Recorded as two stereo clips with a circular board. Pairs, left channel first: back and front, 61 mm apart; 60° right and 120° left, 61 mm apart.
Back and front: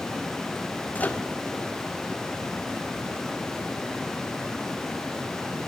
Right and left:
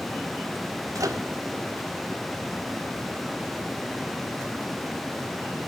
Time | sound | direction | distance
0.9 | a microwave | 120° left | 1.6 m